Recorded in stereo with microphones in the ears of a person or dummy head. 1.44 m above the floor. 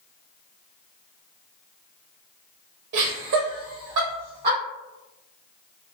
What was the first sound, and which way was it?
Laughter, 50° right (ahead or behind).